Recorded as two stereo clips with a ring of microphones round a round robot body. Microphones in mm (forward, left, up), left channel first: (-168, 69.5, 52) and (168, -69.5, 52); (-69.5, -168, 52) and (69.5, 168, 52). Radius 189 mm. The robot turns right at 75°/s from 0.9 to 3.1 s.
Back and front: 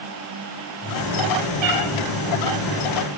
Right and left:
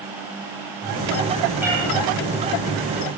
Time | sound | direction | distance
1.6 | a cat meowing | 20° right | 4.5 m